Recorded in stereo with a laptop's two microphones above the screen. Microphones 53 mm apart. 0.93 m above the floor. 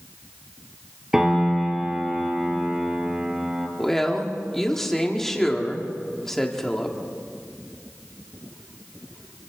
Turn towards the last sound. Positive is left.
turn(degrees=5)  # may be behind; listen again after turning